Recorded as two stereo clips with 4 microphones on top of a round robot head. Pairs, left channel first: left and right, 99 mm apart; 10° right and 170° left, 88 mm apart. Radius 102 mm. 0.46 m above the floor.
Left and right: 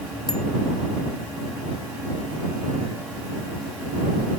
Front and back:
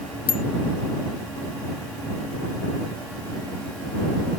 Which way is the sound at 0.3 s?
5° left.